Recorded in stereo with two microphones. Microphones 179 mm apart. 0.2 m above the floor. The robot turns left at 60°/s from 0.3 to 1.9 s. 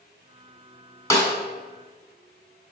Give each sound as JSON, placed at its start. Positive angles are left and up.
{"t": 1.1, "sound": "a snare drum", "side_deg": 20, "distance_m": 1.5}